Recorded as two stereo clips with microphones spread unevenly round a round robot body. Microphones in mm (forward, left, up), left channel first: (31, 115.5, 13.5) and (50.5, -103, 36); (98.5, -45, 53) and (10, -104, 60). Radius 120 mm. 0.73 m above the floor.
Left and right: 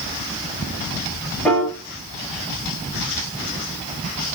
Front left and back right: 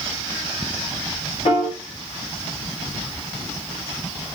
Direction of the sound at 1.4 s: 10° left.